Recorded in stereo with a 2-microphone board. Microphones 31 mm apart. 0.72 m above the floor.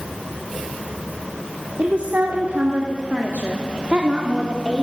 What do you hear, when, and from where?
1.8 s a woman speaking: 55° right (ahead or behind), 1.8 m; by 4.8 s 30° right (ahead or behind), 1.9 m